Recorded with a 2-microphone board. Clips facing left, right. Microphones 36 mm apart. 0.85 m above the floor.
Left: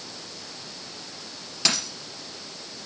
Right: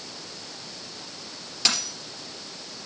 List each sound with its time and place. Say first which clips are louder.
1.6 s a dropped coin: even; 5° left (ahead or behind), 3 m